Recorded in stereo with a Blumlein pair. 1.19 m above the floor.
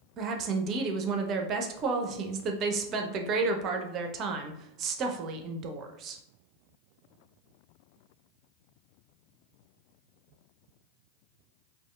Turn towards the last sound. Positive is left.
turn(degrees=-35)